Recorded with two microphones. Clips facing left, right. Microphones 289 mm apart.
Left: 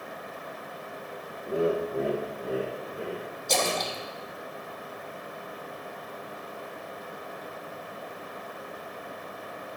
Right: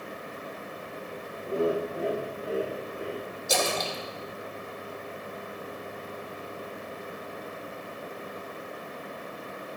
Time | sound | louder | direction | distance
1.4 | laughter | left 1 dB | 5° left (ahead or behind) | 0.9 m
3.5 | a splash | even | 10° right (ahead or behind) | 1.3 m